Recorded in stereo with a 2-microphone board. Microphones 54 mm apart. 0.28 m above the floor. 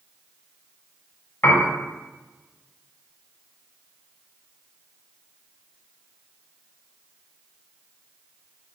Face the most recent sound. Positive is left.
turn(degrees=45)  # may be behind; listen again after turning